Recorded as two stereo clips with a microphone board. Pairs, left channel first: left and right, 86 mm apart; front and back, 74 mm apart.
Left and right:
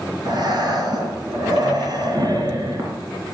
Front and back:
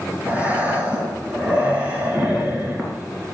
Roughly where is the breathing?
Right.